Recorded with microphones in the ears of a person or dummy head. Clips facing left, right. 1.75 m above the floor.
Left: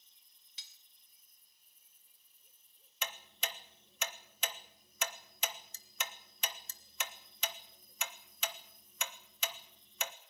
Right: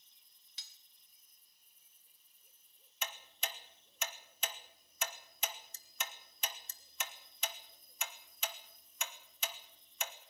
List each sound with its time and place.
0.6 s cutlery clinking: 40° right (ahead or behind), 1.5 m
3.0 s ticking: 60° left (ahead or behind), 1.3 m